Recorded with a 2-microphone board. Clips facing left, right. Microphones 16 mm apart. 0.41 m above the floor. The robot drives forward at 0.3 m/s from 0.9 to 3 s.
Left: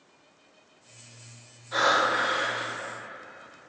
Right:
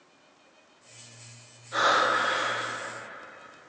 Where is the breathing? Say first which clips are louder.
Even; 25° left (ahead or behind), 0.9 m; by 2.7 s 20° left (ahead or behind), 1.2 m.